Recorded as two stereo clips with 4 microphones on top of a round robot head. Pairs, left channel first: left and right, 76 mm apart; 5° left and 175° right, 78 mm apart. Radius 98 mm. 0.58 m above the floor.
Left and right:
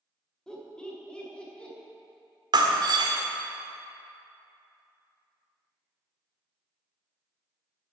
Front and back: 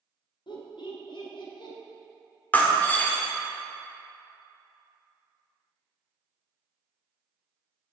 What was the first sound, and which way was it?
Laughter, 10° left.